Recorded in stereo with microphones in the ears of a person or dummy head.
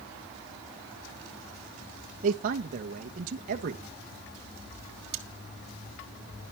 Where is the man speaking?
50° right (ahead or behind), 1.2 m.